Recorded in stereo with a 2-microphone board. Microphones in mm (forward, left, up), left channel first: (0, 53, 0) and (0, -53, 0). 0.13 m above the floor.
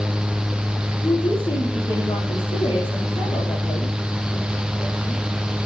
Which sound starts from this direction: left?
A woman speaking, at 1.0 s.